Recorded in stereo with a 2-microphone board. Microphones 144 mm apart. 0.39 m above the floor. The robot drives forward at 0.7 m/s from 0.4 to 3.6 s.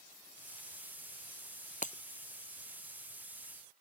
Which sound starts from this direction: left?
Breaking glass, at 1.8 s.